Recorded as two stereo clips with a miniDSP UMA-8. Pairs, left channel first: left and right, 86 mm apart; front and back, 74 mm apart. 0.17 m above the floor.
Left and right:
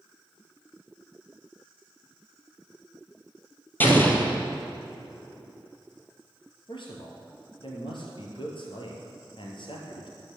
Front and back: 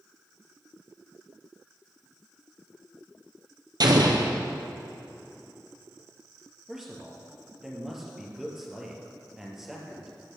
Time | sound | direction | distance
3.8 | an explosion | 160° left | 1.9 m
6.7 | a man speaking | 95° left | 3 m